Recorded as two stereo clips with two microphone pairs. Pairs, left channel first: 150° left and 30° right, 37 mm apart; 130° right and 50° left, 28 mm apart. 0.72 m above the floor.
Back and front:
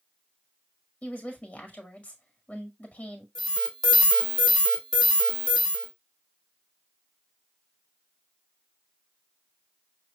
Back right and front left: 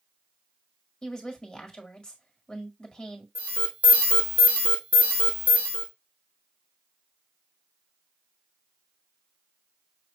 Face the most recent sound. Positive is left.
turn(degrees=75)